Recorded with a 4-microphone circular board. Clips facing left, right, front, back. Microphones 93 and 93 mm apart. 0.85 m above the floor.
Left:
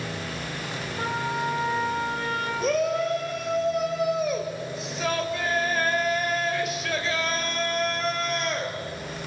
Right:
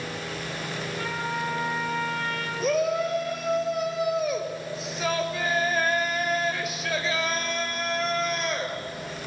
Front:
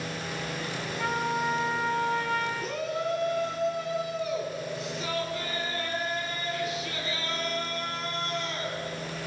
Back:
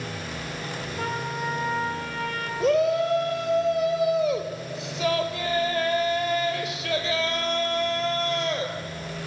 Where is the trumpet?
150° left, 4 m.